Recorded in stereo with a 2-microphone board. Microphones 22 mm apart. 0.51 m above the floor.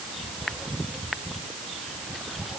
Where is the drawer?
I don't hear a drawer.